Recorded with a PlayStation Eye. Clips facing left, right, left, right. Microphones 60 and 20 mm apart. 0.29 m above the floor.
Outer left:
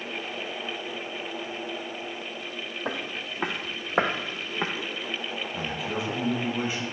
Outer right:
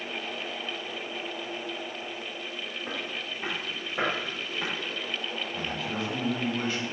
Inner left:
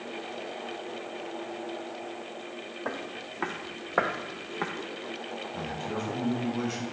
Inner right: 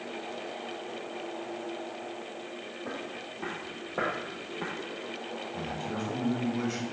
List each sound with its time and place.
2.9 s footsteps: 75° left (ahead or behind), 1.0 m; by 4.7 s 30° left (ahead or behind), 0.9 m
5.5 s a man speaking: 15° left (ahead or behind), 1.3 m